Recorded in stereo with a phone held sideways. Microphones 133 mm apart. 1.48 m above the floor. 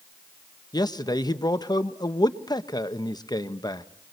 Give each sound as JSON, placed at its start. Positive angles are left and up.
{"t": 0.7, "sound": "a man speaking", "side_deg": 30, "distance_m": 1.2}